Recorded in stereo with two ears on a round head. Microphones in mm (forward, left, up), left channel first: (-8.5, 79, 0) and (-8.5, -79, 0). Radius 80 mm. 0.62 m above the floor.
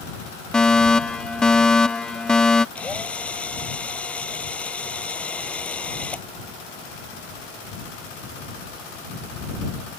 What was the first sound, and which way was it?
A fire alarm, 5° left (ahead or behind).